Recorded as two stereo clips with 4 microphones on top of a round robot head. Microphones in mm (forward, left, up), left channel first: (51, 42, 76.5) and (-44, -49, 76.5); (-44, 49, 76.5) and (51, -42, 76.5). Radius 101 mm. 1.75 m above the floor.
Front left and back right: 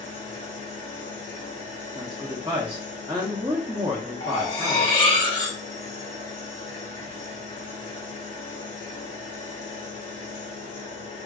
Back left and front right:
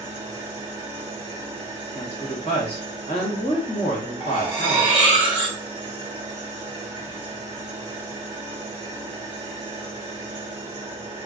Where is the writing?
No writing in this recording.